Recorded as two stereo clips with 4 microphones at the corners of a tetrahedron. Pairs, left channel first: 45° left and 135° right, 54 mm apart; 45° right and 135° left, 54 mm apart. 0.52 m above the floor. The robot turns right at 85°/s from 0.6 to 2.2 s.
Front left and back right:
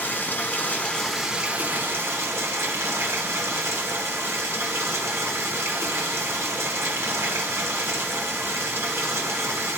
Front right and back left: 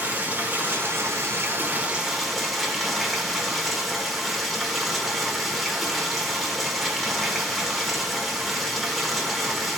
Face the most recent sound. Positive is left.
turn(degrees=-135)